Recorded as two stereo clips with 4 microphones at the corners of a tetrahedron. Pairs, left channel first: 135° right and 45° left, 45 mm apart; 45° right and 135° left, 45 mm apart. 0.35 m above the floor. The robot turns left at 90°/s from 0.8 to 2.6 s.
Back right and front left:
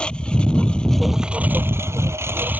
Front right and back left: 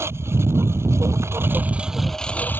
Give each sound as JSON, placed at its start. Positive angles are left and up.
{"t": 0.0, "sound": "a lawn mower", "azimuth_deg": 160}